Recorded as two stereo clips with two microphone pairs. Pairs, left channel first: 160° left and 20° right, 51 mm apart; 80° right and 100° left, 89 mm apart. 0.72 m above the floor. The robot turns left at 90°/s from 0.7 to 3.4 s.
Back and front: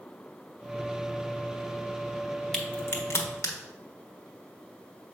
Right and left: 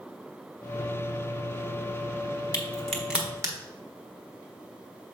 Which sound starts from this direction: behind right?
A crack, at 2.5 s.